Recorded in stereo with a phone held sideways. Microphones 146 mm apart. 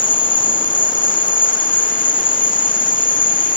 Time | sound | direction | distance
0.0 | an insect | 60° left (ahead or behind) | 0.8 m